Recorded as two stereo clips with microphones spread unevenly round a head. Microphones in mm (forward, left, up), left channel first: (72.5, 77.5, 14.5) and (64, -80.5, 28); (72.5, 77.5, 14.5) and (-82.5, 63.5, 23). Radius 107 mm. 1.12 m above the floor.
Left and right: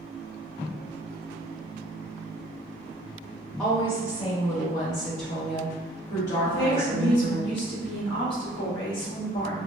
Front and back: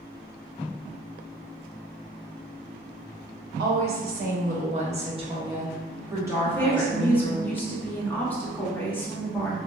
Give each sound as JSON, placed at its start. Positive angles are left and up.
{"t": 3.6, "sound": "a woman speaking", "azimuth_deg": 175, "distance_m": 1.3}
{"t": 6.4, "sound": "a woman speaking", "azimuth_deg": 85, "distance_m": 1.8}